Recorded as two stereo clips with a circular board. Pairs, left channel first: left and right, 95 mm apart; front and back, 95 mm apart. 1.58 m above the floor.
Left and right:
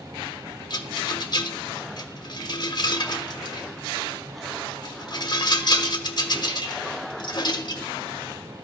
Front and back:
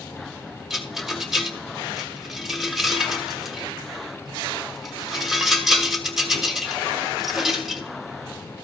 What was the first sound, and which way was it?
A rattle, 95° left.